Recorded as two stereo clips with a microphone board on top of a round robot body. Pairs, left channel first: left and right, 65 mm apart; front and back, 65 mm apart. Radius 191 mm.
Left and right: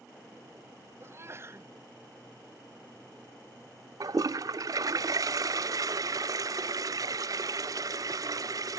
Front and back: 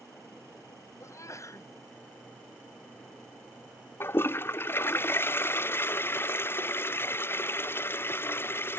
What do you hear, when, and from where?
1.0 s a sneeze: 40° right
4.0 s a toilet flushing: 55° right